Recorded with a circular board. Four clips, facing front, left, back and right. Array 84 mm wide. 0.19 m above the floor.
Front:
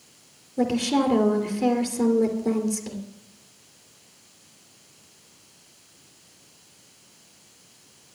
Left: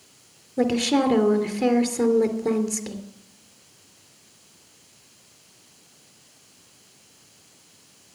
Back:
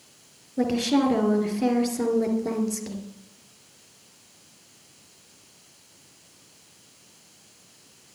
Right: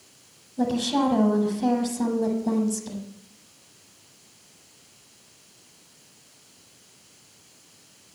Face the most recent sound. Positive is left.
turn(degrees=100)